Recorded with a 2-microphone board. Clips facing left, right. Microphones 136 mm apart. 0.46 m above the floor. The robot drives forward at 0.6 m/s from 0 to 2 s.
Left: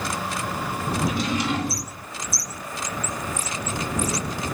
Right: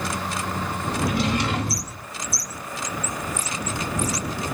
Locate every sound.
1.0 s a drawer: 60° right (ahead or behind), 1.0 m